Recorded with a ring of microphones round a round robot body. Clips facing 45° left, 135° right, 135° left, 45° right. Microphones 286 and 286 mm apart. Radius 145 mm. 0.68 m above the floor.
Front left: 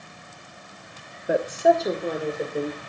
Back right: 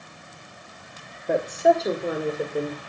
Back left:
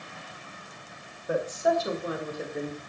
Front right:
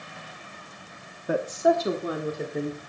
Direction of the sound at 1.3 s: 40° right.